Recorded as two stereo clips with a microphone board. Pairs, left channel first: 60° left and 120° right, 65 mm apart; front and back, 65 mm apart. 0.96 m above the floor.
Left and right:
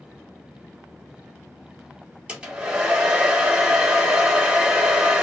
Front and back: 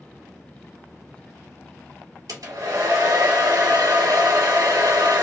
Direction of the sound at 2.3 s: 170° left.